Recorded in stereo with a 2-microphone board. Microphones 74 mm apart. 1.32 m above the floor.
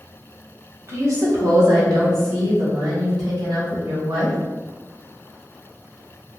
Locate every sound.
0.9 s a woman speaking: 45° right (ahead or behind), 1.5 m; by 4.4 s 75° right (ahead or behind), 3.5 m